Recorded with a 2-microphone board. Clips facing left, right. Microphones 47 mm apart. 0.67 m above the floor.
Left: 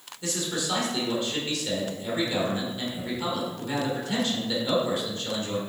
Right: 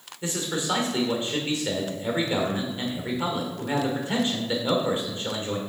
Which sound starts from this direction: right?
A man speaking, at 0.2 s.